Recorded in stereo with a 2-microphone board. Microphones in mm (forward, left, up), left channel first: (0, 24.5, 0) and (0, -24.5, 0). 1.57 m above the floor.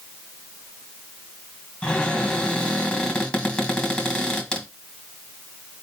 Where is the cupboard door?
25° left (ahead or behind), 2.0 m.